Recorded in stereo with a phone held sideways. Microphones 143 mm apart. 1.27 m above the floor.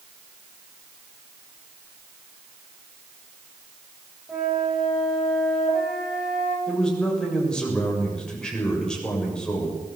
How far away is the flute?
About 8 m.